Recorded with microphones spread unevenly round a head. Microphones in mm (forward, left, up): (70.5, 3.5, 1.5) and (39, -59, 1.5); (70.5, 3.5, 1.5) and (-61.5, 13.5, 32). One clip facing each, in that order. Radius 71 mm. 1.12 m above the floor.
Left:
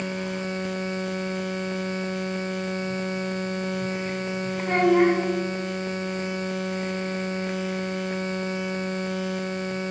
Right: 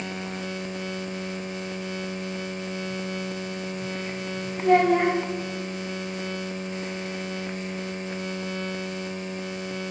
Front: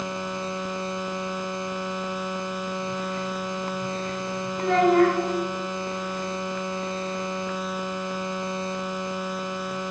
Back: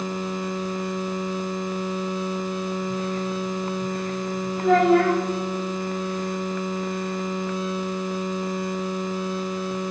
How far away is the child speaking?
About 3 m.